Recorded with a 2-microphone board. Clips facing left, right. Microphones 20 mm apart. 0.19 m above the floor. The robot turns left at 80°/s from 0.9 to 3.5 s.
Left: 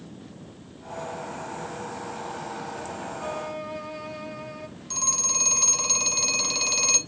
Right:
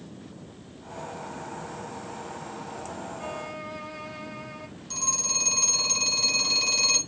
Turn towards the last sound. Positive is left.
turn(degrees=25)  # may be behind; listen again after turning